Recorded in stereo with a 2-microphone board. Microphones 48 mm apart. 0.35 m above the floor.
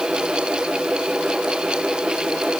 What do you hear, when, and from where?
Only background noise.